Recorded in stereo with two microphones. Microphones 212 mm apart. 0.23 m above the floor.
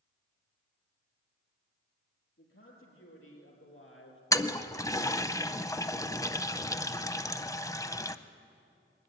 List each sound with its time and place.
2.4 s a man speaking: 80° left, 5.5 m; by 4.2 s 70° left (ahead or behind), 3 m
4.3 s a toilet flushing: 15° left (ahead or behind), 0.6 m